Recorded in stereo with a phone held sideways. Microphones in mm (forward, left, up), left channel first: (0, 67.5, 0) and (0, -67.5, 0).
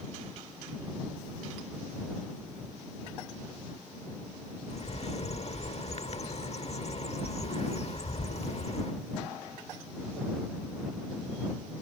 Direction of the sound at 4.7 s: 50° left (ahead or behind).